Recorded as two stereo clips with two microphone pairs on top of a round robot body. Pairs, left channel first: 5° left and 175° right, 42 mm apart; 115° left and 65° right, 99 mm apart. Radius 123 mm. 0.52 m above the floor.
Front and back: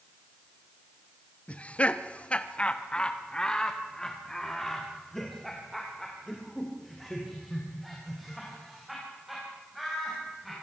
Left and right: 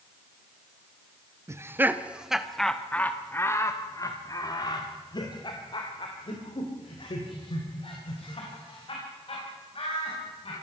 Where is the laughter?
20° right, 1.2 m; by 10.5 s 100° left, 5 m.